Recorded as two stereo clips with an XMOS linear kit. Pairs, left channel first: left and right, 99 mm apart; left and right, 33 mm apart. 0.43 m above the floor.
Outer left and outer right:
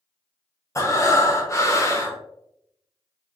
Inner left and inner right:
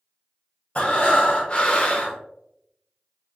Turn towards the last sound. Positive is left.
turn(degrees=30)  # may be behind; listen again after turning